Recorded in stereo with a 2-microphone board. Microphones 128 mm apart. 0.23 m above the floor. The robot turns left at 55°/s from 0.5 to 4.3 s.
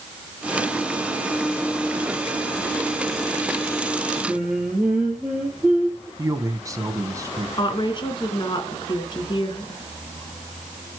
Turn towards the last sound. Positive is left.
turn(degrees=40)  # may be behind; listen again after turning